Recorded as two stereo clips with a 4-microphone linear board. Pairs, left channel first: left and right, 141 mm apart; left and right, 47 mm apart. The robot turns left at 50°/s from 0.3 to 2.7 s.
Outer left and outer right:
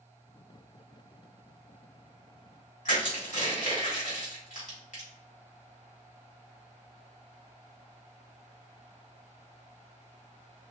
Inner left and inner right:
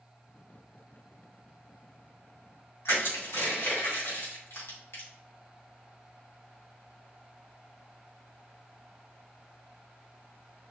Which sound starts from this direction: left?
Crushing, at 2.9 s.